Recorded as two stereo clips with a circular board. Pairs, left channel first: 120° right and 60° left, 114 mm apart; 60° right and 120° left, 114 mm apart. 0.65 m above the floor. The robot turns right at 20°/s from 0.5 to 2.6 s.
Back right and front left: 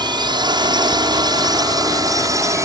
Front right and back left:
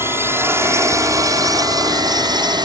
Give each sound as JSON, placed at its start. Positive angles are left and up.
{"t": 0.0, "sound": "a drone", "azimuth_deg": 65}